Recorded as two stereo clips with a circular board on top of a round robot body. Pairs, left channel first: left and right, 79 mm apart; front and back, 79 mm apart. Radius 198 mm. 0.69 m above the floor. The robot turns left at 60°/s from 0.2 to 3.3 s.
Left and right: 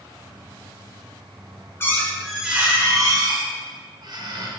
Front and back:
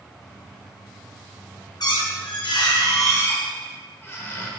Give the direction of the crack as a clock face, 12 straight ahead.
No crack in this recording.